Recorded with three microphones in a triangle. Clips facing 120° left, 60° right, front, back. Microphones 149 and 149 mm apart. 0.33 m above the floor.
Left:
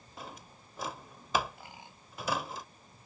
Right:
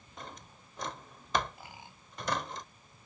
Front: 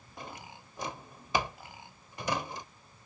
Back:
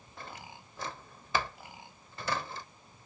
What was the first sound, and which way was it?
A drawer, 45° left.